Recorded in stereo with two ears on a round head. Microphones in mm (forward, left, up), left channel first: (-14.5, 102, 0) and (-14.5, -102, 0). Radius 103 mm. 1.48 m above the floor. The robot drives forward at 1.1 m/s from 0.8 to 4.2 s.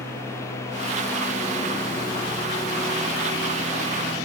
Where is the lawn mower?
10° left (ahead or behind); by 4.3 s 15° left (ahead or behind).